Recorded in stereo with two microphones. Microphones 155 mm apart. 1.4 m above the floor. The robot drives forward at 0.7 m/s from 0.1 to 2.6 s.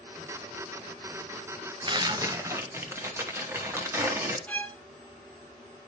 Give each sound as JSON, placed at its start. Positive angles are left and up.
{"t": 1.9, "sound": "tearing paper", "side_deg": -30, "distance_m": 0.6}
{"t": 4.5, "sound": "a violin", "side_deg": 10, "distance_m": 0.6}